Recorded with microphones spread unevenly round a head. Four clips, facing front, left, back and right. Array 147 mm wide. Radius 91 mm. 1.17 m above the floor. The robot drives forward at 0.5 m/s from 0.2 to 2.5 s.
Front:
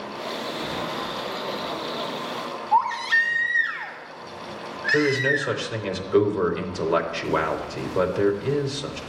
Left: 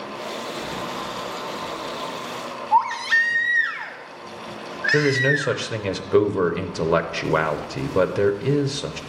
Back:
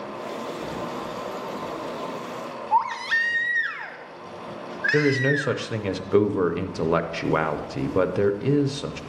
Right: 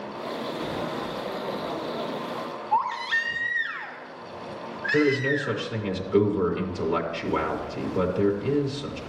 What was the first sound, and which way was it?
A baby crying, 135° left.